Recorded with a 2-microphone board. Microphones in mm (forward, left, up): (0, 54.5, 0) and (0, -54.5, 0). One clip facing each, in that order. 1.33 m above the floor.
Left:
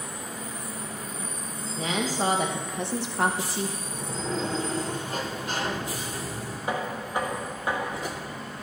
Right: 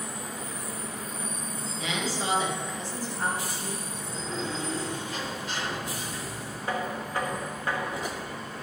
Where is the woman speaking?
35° left (ahead or behind), 1.3 m; by 3.7 s 85° left, 0.8 m.